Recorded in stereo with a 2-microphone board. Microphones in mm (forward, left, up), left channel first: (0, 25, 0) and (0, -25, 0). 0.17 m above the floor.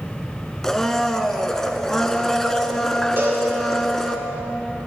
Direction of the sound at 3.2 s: 50° right (ahead or behind).